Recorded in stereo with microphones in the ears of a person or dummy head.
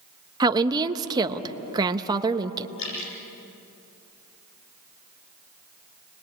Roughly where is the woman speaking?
Right.